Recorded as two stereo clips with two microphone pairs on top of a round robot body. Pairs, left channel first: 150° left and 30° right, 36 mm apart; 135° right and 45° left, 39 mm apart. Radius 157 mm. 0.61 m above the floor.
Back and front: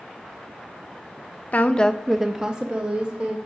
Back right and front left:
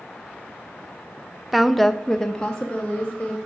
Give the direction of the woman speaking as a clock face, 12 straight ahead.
8 o'clock.